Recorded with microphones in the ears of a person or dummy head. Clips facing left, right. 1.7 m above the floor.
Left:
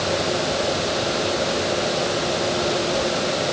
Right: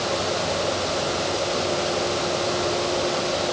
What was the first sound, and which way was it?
Only background noise.